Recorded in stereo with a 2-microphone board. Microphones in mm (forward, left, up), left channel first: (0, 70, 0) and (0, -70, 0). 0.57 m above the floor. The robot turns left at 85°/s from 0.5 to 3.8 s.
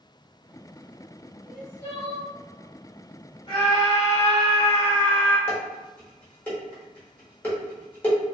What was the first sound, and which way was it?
Crying, 175° right.